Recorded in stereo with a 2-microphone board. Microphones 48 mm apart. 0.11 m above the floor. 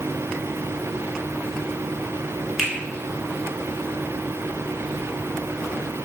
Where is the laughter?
I don't hear laughter.